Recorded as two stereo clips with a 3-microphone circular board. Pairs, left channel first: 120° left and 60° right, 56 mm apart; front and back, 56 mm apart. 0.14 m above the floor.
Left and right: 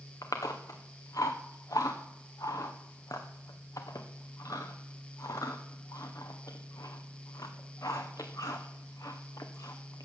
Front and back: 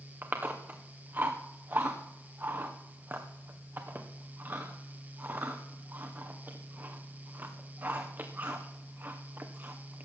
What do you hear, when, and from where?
0.2 s chewing: 125° left, 2 m